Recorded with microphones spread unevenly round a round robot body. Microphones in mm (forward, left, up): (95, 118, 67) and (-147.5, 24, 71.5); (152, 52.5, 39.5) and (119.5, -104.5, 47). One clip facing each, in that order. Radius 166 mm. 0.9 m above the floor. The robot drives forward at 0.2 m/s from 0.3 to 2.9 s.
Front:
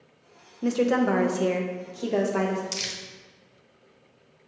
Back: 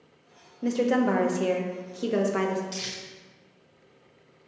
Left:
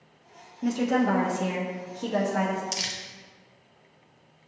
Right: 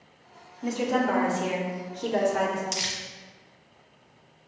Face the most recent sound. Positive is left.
turn(degrees=30)